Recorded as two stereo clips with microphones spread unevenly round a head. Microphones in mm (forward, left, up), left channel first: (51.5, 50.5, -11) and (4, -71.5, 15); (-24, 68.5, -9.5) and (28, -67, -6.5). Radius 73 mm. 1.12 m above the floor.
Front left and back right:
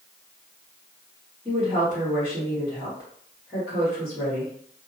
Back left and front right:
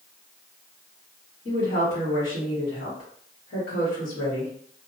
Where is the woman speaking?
155° left, 1.4 m.